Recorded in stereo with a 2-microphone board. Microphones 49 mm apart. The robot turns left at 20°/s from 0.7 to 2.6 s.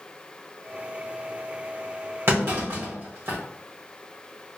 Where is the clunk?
60° right (ahead or behind), 2.5 m.